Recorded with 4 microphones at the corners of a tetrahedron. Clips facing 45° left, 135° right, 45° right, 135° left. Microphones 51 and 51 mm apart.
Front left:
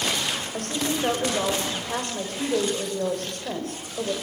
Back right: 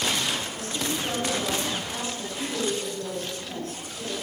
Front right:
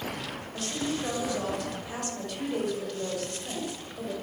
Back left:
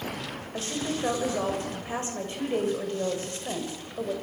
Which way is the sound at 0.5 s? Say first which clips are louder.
Front left 3 dB, back left 1 dB; 75° left.